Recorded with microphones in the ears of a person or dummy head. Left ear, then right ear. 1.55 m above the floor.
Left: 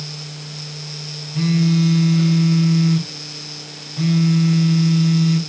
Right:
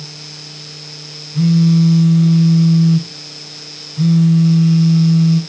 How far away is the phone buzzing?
About 3.5 m.